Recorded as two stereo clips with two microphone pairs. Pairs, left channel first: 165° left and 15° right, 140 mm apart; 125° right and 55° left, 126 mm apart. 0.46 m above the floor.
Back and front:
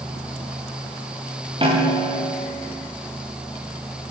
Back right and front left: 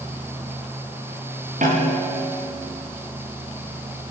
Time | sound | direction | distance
1.6 | a snare drum | 40° left | 7 m